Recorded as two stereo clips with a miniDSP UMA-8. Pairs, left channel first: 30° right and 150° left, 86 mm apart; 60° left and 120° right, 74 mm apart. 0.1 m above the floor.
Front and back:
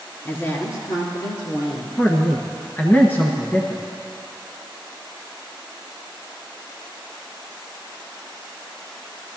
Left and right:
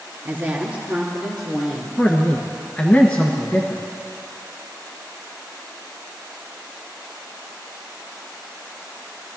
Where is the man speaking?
10° left, 1.3 m.